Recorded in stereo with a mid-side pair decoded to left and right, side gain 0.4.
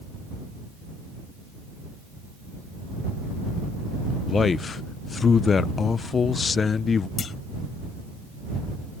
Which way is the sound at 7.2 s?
55° left.